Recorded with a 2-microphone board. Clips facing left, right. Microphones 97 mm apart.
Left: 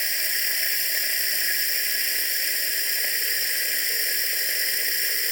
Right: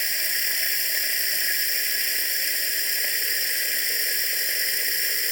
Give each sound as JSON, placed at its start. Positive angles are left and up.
{"t": 0.0, "sound": "running water", "side_deg": 0, "distance_m": 0.8}